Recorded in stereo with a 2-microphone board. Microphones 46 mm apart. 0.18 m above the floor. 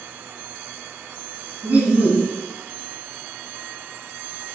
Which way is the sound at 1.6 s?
35° right (ahead or behind).